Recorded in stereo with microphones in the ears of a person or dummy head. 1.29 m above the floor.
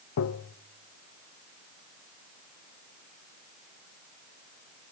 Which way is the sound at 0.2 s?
85° left.